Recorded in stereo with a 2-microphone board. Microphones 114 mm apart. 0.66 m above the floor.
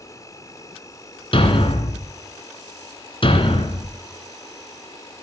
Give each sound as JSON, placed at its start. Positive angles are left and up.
{"t": 0.0, "sound": "an insect", "side_deg": 30, "distance_m": 1.7}
{"t": 1.3, "sound": "a thud", "side_deg": 50, "distance_m": 2.0}